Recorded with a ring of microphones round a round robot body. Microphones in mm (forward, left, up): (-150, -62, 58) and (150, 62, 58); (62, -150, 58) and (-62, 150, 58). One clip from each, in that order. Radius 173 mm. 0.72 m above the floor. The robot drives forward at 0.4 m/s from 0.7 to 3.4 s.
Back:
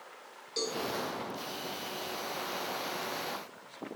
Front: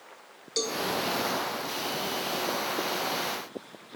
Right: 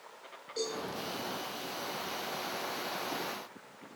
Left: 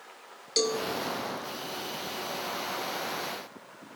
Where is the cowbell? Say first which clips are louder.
Front 4 dB, left 9 dB; 90° left, 0.7 m; by 0.8 s 95° left, 0.7 m.